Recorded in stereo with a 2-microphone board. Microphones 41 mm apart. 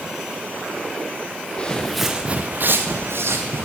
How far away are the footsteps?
About 1.2 m.